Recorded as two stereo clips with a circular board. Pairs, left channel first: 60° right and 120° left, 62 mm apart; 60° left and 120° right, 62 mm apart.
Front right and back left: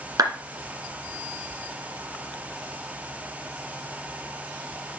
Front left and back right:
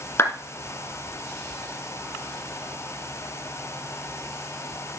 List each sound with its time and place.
0.2 s a clap: 105° left, 2.0 m